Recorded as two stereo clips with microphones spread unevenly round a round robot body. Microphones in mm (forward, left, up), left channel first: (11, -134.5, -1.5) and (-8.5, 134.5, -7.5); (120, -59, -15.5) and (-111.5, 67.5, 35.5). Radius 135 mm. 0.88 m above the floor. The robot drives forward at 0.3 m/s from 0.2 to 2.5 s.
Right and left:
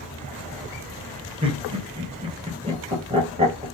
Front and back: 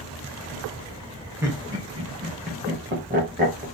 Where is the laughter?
60° left, 0.9 m; by 3.6 s 115° left, 0.9 m.